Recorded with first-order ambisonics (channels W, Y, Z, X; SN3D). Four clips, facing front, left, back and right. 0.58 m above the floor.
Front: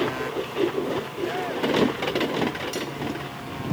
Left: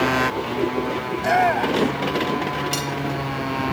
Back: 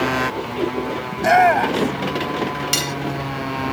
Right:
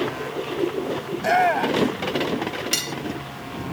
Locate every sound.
0.0 s a motorcycle: 130° left; by 3.7 s 135° left
1.1 s a shout: straight behind
2.7 s cutlery clinking: 165° right